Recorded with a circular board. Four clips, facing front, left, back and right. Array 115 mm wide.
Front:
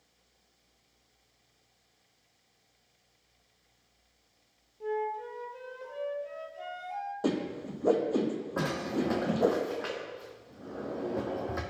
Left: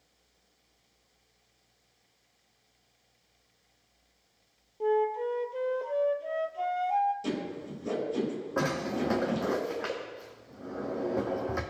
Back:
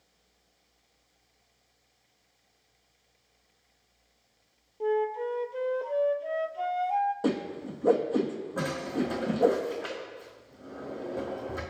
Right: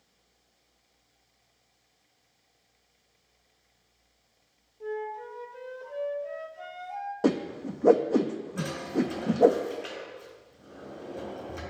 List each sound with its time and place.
4.8 s a flute: 140° left, 0.6 m
7.2 s a whoosh: 95° right, 1.4 m
8.6 s a drawer: 70° left, 1.8 m